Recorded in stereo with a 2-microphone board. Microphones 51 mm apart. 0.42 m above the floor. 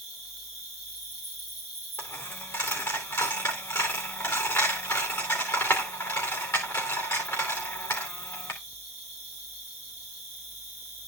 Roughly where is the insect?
Left.